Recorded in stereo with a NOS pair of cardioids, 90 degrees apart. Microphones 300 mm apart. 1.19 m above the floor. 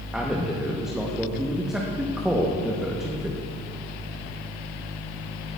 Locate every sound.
0.1 s a man speaking: straight ahead, 1.0 m